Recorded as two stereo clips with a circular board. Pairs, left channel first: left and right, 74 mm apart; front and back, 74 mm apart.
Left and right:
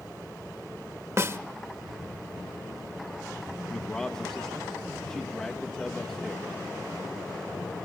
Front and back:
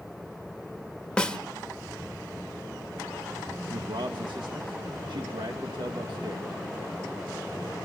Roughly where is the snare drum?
Right.